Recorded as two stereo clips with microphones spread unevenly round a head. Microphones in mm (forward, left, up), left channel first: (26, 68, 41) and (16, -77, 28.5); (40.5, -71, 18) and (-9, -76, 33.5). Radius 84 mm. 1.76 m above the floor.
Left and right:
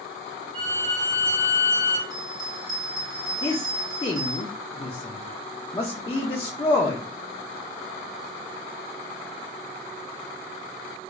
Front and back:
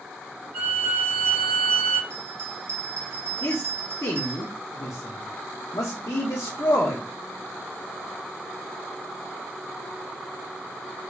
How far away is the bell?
About 1.0 m.